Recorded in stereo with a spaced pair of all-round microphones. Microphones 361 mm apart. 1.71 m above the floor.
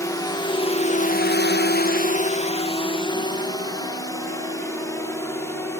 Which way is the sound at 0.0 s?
10° left (ahead or behind).